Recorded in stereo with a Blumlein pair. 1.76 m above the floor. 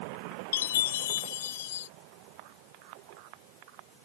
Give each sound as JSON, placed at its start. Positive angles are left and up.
{"t": 0.5, "sound": "a chime", "azimuth_deg": 60}